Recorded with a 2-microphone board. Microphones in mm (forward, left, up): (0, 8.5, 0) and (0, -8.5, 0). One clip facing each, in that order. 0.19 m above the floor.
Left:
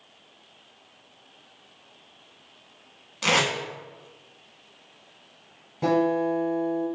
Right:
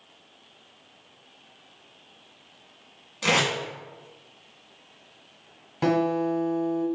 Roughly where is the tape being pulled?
Centre.